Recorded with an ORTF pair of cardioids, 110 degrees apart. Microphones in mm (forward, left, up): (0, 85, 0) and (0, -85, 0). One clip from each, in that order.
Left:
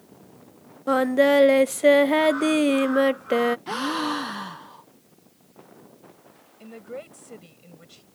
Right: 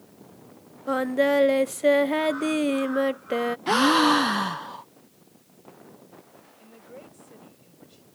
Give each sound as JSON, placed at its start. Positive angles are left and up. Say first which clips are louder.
{"t": 0.9, "sound": "singing", "louder": "left 4 dB", "azimuth_deg": 20}
{"t": 3.7, "sound": "a gasp", "louder": "right 7 dB", "azimuth_deg": -35}
{"t": 6.6, "sound": "a woman speaking", "louder": "left 9 dB", "azimuth_deg": 55}